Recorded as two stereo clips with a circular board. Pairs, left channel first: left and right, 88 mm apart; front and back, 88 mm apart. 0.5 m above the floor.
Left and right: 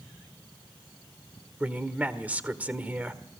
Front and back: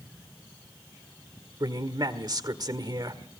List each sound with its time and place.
1.6 s a man speaking: 160° right, 1.5 m